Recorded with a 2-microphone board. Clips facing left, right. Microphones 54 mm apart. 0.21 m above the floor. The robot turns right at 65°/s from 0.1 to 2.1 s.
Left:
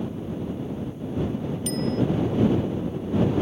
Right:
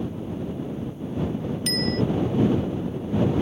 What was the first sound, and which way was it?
A bicycle bell, 90° right.